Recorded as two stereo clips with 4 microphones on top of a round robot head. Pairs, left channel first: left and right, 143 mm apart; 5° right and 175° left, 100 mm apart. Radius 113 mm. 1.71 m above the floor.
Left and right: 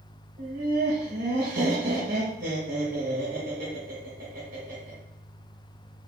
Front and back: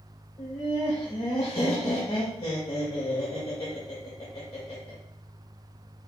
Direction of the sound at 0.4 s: 55° right.